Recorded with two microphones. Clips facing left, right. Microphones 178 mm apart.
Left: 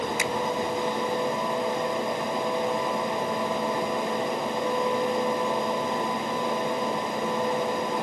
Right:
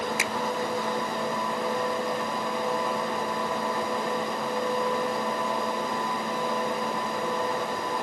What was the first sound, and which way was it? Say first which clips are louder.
A finger snap: left 3 dB; 90° right.